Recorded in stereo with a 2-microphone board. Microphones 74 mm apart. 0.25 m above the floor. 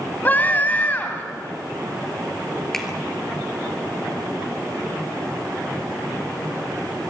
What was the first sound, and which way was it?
A scream, 25° left (ahead or behind).